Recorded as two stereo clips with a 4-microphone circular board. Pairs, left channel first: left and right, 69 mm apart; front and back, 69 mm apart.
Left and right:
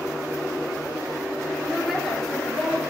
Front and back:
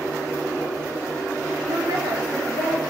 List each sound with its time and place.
1.7 s a woman speaking: 175° right, 1.8 m; by 2.8 s 160° left, 2.5 m